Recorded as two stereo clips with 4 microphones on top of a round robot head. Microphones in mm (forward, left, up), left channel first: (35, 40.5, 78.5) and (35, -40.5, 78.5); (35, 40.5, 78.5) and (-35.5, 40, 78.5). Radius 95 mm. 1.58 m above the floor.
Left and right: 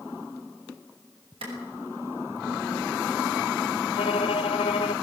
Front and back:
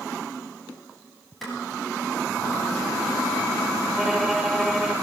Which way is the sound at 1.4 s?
90° right.